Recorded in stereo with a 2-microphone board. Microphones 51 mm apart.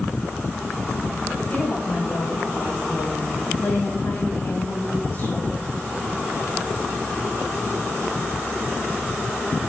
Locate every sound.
1.5 s a woman speaking: 45° left (ahead or behind), 6 m